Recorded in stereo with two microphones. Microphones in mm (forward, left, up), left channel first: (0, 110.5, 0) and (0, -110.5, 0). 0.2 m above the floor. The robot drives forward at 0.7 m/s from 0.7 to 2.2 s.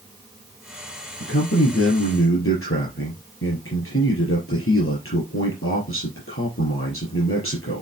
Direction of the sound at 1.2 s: 75° left (ahead or behind).